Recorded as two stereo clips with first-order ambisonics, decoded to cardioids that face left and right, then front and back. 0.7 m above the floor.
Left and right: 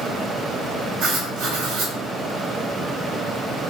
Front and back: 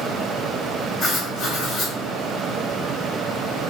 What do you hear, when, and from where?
1.0 s writing: 55° right, 1.3 m